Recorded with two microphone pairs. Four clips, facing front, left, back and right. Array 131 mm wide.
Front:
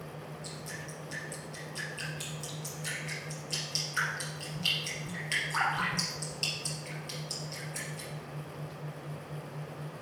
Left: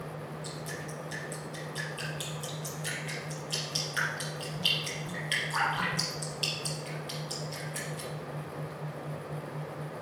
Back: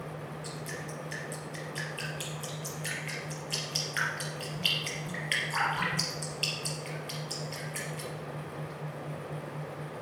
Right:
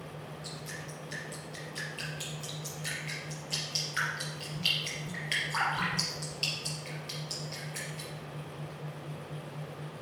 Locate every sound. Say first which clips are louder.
0.4 s dripping: left 4 dB, back 4 dB; 150° left, 3.5 m